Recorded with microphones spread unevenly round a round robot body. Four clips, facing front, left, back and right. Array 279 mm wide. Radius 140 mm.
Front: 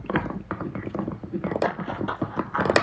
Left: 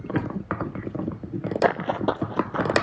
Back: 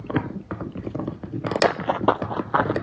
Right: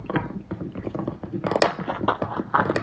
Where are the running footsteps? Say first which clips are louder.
Left 4 dB, back 6 dB; 130° left, 0.7 m; by 2.8 s 175° left, 1.8 m.